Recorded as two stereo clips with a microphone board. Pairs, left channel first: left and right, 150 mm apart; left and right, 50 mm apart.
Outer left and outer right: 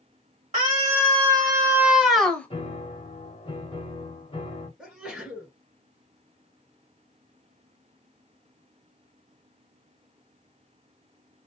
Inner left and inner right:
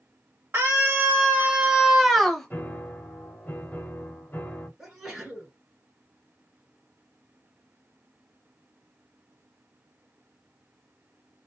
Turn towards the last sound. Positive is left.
turn(degrees=-5)  # may be behind; listen again after turning